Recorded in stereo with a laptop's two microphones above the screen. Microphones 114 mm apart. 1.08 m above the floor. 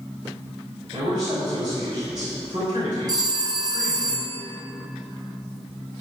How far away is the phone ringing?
About 0.8 m.